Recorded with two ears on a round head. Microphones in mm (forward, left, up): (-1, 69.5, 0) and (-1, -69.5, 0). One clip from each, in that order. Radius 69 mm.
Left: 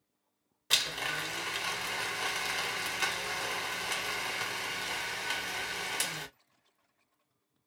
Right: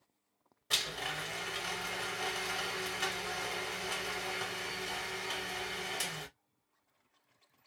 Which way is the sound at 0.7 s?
30° left (ahead or behind).